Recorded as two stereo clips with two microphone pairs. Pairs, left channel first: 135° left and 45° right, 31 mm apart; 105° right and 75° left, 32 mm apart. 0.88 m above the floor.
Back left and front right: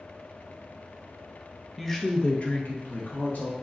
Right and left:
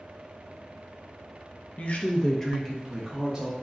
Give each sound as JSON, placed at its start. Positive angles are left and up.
{"t": 1.8, "sound": "a woman speaking", "azimuth_deg": -135, "distance_m": 0.6}